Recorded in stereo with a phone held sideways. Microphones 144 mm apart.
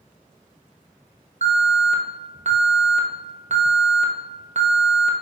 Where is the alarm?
50° right (ahead or behind), 1.0 m.